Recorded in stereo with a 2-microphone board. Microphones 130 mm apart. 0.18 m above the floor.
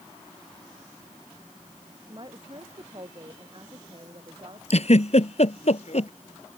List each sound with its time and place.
2.1 s a woman speaking: 40° right (ahead or behind)
4.7 s a giggle: 55° left (ahead or behind)